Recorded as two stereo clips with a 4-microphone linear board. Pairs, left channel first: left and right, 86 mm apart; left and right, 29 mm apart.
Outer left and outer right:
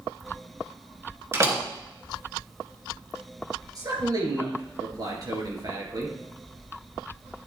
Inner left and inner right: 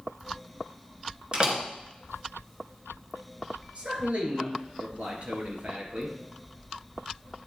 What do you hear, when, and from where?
1.3 s a door slam: 30° right (ahead or behind), 1.8 m
3.8 s a man speaking: 45° right (ahead or behind), 3 m